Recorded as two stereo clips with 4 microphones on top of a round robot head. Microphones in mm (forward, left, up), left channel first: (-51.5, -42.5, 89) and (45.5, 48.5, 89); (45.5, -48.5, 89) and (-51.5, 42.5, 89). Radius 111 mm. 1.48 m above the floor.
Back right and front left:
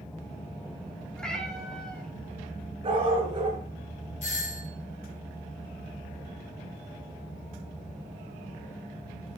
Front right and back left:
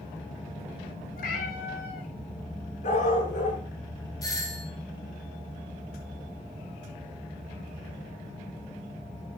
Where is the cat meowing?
50° right, 4 m.